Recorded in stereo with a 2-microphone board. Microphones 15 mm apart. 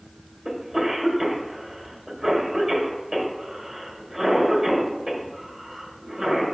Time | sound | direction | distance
0.5 | a cough | 10° right (ahead or behind) | 1.8 m